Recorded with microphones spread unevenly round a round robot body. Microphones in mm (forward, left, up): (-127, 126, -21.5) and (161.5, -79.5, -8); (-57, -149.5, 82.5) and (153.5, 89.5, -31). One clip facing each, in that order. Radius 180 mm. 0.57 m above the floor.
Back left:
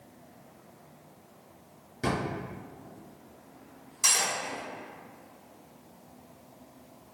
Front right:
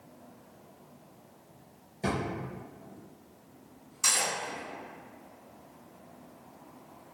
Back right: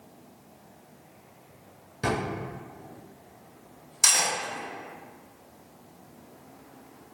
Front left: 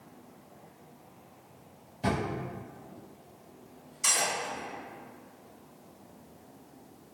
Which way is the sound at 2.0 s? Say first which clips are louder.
Back left 1 dB, back right 2 dB; 160° right.